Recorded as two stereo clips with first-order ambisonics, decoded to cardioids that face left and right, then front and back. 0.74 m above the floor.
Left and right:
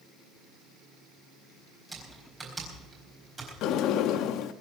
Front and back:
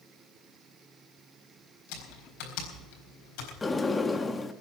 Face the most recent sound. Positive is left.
turn(degrees=75)